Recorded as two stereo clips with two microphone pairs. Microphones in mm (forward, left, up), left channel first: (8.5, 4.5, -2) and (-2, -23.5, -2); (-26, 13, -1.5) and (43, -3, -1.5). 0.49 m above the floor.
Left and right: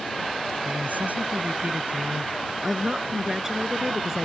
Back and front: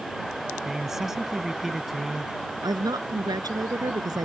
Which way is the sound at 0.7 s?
95° right.